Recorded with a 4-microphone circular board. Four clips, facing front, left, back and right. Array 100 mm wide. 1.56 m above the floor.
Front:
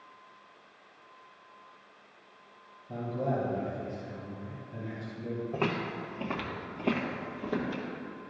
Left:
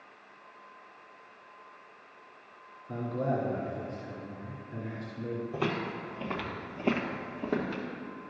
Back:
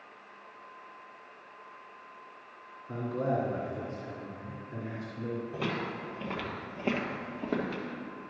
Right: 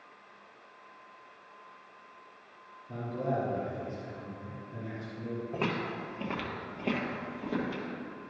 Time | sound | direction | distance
2.9 | a man speaking | 150° left | 2.5 m
5.5 | footsteps | 40° right | 1.9 m